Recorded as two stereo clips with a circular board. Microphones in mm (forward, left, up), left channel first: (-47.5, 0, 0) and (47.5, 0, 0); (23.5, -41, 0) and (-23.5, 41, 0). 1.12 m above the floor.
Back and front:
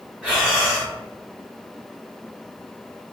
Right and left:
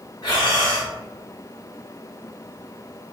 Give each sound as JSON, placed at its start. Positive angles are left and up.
{"t": 0.2, "sound": "breathing", "azimuth_deg": -70, "distance_m": 1.5}